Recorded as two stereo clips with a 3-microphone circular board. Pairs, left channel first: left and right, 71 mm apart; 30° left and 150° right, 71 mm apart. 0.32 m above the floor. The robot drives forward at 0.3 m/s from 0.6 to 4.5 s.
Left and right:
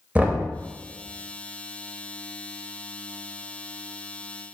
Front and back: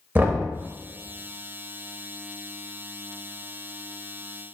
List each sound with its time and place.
0.1 s knocking: 130° right, 0.6 m